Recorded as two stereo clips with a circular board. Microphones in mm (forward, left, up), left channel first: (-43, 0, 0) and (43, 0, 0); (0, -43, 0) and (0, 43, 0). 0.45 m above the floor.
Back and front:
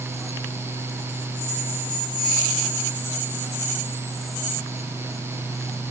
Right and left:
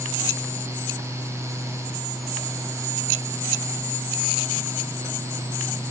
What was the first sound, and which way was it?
Only background noise.